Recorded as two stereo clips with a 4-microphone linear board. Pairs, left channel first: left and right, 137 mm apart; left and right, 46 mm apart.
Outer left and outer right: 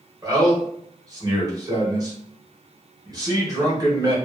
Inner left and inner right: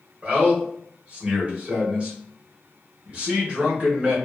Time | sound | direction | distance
0.2 | a man speaking | 30° right (ahead or behind) | 1.1 m